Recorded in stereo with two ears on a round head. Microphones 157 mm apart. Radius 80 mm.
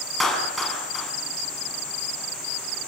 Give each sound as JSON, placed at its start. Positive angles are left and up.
{"t": 0.2, "sound": "a clap", "side_deg": 0, "distance_m": 6.0}